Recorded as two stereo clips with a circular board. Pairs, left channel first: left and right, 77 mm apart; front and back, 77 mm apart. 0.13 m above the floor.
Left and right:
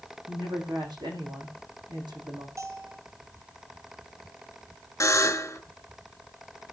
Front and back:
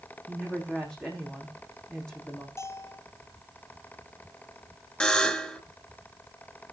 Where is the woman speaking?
80° right, 6.5 m.